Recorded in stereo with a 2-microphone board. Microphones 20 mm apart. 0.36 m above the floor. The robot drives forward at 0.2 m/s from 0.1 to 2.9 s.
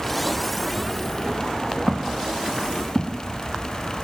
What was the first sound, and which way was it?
Footsteps, 75° right (ahead or behind).